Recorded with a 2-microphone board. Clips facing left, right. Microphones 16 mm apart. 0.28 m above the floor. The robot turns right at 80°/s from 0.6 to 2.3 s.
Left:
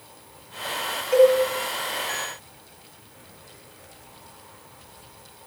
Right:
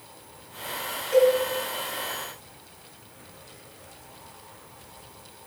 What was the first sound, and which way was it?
A cowbell, 45° left (ahead or behind).